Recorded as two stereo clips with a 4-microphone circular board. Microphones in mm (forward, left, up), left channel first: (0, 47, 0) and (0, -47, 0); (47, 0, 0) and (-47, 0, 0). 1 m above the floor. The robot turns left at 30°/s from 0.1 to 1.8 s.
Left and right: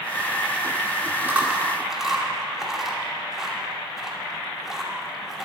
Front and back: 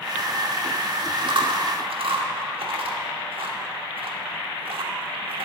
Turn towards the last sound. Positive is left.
turn(degrees=-175)